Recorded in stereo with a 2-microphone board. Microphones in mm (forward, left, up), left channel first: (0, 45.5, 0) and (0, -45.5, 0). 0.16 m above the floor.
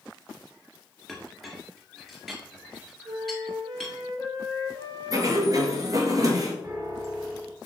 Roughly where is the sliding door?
Right.